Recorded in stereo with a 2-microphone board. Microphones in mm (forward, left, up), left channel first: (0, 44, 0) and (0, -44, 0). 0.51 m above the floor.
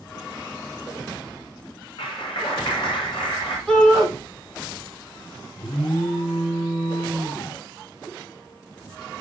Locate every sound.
2.0 s a clap: 75° left (ahead or behind), 6.5 m
3.7 s a shout: centre (ahead or behind), 6.5 m
5.6 s an alarm: 80° left, 7.5 m